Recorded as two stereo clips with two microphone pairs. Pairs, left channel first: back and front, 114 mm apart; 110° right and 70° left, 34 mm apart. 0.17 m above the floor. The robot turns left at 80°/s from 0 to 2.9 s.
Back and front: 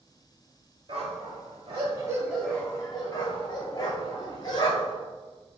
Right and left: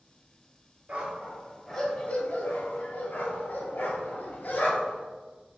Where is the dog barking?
35° left, 0.7 m; by 5.0 s 125° right, 0.7 m.